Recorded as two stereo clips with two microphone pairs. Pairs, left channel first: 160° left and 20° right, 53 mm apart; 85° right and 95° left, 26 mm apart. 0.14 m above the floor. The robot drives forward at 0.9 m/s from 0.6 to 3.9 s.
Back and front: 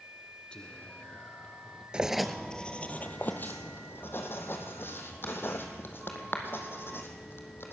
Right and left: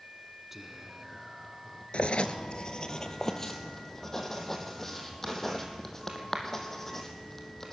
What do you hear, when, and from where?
0.5 s whispering: 160° left, 1.3 m; by 1.8 s 175° left, 2.0 m
1.9 s writing: 90° right, 0.8 m; by 7.7 s 160° right, 1.9 m